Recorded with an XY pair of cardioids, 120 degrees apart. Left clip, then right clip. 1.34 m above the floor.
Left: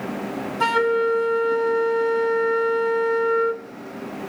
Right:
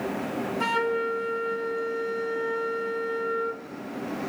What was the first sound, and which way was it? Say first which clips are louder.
A flute: left 7 dB; 30° left.